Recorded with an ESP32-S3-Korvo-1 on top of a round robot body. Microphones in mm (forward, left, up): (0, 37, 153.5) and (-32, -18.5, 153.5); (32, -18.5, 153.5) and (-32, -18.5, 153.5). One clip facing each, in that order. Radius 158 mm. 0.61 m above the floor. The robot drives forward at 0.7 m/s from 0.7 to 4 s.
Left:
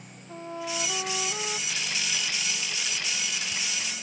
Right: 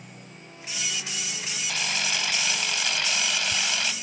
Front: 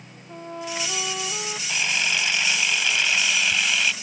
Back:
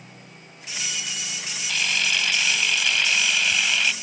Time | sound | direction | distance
0.3 | a trumpet | 30° left | ?
1.7 | a camera shutter | 75° right | ?